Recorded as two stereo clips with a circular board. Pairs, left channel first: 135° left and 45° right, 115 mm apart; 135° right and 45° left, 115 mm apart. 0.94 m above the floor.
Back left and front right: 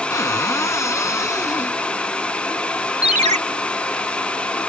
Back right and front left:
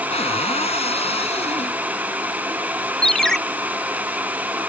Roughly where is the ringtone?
Ahead right.